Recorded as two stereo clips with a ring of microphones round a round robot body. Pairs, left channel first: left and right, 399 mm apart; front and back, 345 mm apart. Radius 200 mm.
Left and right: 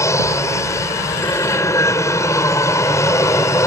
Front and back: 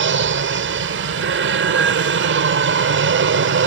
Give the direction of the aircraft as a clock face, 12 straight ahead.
6 o'clock.